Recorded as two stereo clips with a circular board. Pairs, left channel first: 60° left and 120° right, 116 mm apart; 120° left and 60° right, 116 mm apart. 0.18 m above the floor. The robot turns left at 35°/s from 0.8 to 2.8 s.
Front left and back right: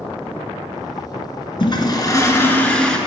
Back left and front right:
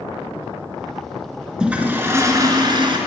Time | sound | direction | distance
1.6 | a toilet flushing | 20° left | 1.3 m